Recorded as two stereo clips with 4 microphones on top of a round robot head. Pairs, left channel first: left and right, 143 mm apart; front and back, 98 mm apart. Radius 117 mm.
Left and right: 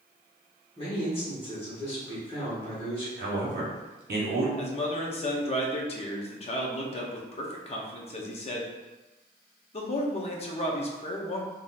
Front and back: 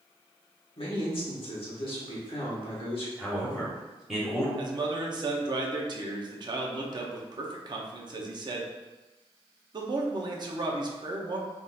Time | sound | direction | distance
0.8 | a man speaking | 30° left | 1.2 m
3.2 | a man speaking | 90° right | 0.9 m
4.6 | a man speaking | 135° left | 0.6 m